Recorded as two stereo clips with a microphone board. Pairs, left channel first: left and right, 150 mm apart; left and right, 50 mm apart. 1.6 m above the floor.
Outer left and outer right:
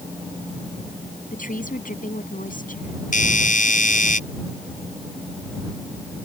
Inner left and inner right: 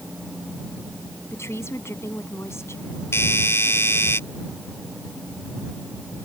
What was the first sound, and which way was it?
A woman speaking, 65° left (ahead or behind).